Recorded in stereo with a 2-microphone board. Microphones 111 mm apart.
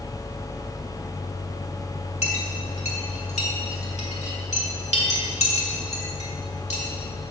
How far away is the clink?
About 1.4 m.